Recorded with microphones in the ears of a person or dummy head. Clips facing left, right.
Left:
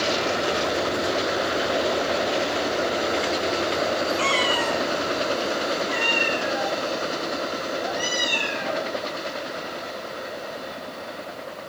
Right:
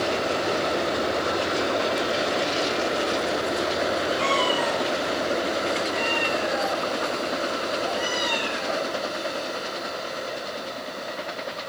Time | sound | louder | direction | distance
4.2 | a cat meowing | right 1 dB | 25° left (ahead or behind) | 1.6 m